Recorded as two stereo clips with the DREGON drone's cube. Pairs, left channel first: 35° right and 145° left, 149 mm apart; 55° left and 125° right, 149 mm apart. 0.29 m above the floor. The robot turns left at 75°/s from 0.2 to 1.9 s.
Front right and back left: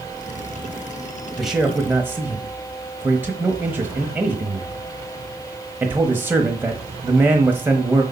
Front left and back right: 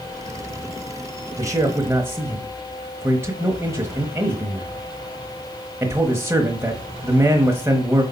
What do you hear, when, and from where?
1.4 s a man speaking: 120° right, 0.9 m; by 8.0 s 160° right, 0.9 m